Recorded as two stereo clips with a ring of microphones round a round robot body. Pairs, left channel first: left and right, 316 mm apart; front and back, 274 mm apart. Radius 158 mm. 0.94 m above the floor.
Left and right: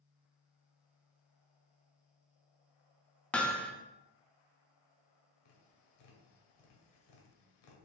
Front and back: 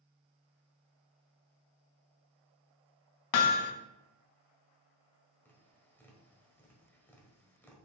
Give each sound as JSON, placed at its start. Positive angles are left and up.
{"t": 3.3, "sound": "hammering", "azimuth_deg": 5, "distance_m": 0.7}
{"t": 5.5, "sound": "tapping", "azimuth_deg": 85, "distance_m": 1.8}